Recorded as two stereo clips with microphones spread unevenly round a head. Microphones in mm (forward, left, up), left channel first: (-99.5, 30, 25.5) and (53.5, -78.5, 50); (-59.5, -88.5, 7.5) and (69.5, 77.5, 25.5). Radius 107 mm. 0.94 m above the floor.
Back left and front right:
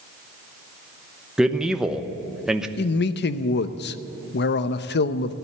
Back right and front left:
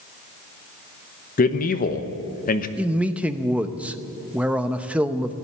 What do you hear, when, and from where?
1.4 s a man speaking: 130° right, 1.0 m
2.8 s a man speaking: 140° left, 0.7 m